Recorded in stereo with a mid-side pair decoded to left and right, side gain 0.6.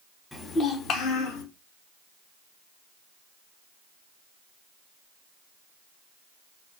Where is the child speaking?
15° left, 0.9 m; by 1.4 s 80° left, 1.0 m.